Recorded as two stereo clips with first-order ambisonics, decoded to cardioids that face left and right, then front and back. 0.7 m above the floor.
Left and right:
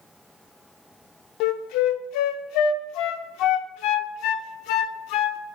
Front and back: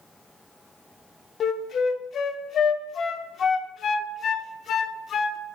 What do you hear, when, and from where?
1.4 s a flute: 60° left, 0.5 m